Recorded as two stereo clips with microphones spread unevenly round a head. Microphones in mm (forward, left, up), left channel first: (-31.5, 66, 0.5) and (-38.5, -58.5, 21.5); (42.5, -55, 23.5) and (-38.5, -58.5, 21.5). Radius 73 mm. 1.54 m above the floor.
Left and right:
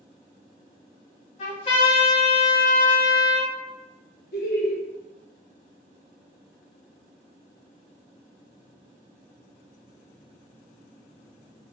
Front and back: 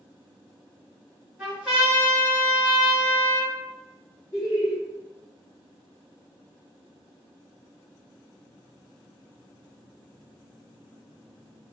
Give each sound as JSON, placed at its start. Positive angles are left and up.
{"t": 1.4, "sound": "a trumpet", "azimuth_deg": 105, "distance_m": 1.8}
{"t": 4.3, "sound": "laughter", "azimuth_deg": 70, "distance_m": 0.9}